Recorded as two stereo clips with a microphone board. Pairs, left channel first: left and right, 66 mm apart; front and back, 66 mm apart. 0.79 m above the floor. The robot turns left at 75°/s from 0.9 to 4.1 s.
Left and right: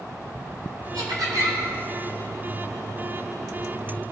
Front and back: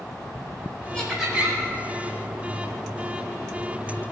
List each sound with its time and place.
0.9 s laughter: 75° right, 4.5 m; by 1.6 s 125° right, 4.5 m